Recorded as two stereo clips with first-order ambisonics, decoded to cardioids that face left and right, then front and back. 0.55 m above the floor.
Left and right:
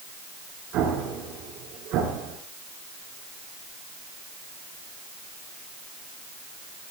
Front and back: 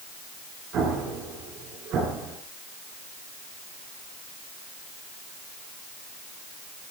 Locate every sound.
0.7 s an explosion: 130° right, 6.5 m